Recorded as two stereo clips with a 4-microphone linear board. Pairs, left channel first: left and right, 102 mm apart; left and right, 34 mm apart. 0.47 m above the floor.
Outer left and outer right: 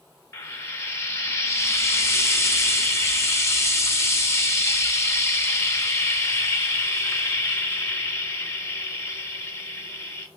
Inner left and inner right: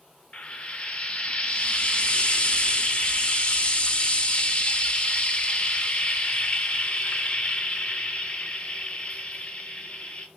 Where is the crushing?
No crushing in this recording.